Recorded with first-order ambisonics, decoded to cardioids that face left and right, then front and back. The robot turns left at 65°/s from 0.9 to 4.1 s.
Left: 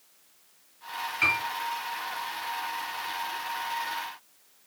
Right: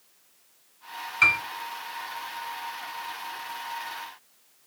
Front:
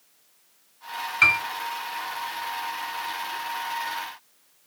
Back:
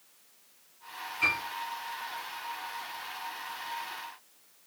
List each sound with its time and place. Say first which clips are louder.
1.2 s a piano: right 5 dB, front 9 dB; 30° right, 1.0 m; by 1.4 s 40° right, 1.0 m